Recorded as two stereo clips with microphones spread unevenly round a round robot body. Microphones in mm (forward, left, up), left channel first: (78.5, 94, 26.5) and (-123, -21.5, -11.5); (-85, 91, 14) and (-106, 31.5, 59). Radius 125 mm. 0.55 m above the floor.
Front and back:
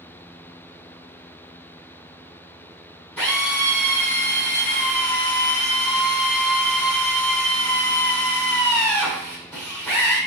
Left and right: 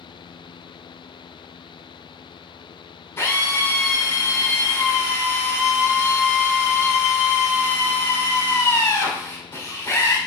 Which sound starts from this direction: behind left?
A drill, at 3.2 s.